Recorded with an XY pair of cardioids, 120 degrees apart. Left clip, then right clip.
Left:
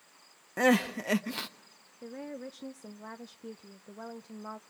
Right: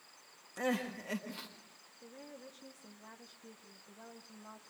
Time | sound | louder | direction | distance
0.6 | crying | left 10 dB | 65° left | 1.3 m
2.0 | a woman speaking | left 10 dB | 55° left | 0.7 m